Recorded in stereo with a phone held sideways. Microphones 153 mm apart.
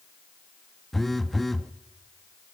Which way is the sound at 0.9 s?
Centre (ahead or behind).